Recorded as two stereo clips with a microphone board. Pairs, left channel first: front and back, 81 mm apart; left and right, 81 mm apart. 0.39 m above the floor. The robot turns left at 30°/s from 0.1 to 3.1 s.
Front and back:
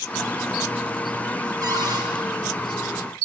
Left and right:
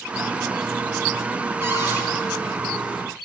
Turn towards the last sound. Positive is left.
turn(degrees=170)